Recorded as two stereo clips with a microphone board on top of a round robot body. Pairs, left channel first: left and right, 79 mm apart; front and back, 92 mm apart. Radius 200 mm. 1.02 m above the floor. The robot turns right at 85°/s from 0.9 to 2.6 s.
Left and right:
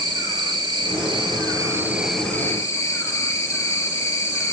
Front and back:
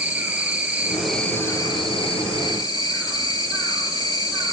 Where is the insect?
105° right, 2.5 m; by 4.5 s 40° left, 2.5 m.